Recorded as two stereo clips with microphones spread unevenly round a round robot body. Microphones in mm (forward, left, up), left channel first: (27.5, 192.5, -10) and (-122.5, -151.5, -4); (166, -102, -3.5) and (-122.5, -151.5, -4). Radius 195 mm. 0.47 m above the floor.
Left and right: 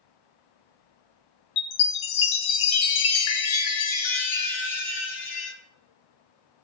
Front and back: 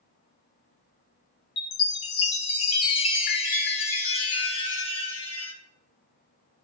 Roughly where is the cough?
I don't hear a cough.